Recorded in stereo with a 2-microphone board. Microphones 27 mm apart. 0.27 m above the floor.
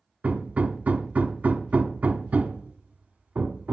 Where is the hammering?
65° right (ahead or behind), 1.0 m.